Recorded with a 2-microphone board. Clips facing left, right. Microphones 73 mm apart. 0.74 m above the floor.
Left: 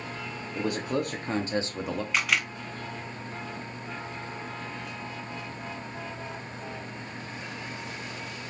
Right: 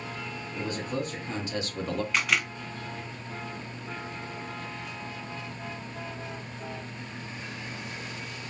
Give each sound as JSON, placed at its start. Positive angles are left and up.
{"t": 0.6, "sound": "a man speaking", "side_deg": 70, "distance_m": 1.3}
{"t": 2.1, "sound": "a camera shutter", "side_deg": 0, "distance_m": 1.0}